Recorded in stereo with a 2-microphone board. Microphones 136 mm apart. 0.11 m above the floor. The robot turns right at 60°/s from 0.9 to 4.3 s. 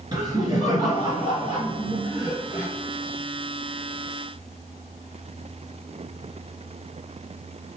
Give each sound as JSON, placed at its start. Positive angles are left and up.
{"t": 0.1, "sound": "laughter", "azimuth_deg": -115, "distance_m": 1.6}